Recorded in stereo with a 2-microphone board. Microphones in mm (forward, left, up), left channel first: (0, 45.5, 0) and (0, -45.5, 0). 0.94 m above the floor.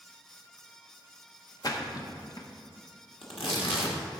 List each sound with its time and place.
1.6 s a splash: 45° left (ahead or behind), 0.9 m
3.2 s tearing paper: 85° left, 1.6 m